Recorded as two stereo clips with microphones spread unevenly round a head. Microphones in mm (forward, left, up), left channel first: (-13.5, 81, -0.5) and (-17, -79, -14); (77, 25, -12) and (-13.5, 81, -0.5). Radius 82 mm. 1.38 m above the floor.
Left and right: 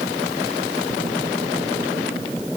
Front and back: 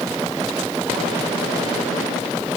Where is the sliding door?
No sliding door in this recording.